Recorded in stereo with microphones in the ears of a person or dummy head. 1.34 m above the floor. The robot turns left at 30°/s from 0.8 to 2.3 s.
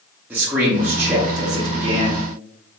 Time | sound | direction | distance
0.3 | a man speaking | 15° right | 0.5 m